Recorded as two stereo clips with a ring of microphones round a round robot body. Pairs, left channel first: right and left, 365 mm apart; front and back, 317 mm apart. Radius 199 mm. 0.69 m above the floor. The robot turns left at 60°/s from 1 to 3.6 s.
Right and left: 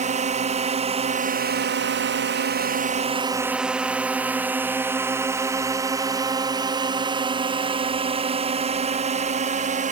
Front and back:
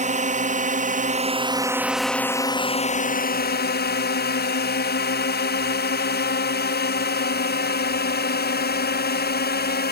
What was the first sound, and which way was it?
A drone, 140° left.